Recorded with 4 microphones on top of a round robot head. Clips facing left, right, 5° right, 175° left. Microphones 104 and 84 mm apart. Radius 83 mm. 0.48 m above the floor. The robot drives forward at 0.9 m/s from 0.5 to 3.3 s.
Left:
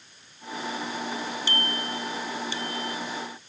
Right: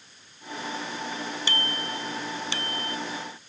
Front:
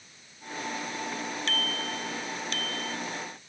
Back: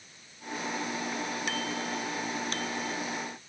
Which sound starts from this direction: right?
A bicycle bell, at 1.5 s.